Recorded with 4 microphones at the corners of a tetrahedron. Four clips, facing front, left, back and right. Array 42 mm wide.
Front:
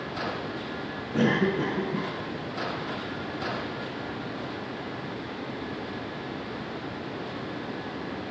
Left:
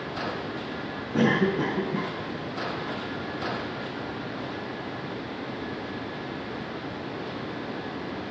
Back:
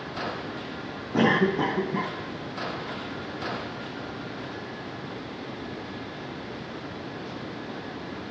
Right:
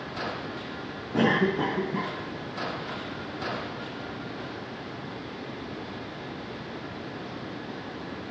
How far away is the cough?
About 4.5 m.